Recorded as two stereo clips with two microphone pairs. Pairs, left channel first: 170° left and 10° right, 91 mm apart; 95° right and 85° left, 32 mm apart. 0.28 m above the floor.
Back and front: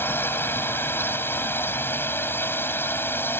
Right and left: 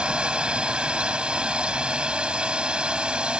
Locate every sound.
0.0 s a drone: 120° left